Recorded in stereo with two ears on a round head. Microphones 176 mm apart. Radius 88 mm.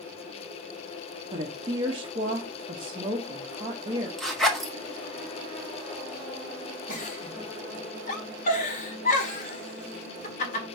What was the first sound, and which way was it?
A woman speaking, 25° right (ahead or behind).